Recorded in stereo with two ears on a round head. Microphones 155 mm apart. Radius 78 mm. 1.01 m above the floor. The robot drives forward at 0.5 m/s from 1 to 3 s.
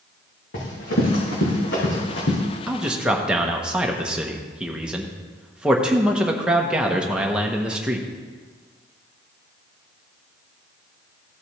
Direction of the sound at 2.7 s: 5° right (ahead or behind).